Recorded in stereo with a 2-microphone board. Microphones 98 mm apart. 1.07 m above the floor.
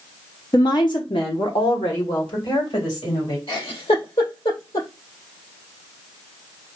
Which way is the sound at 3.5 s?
80° left.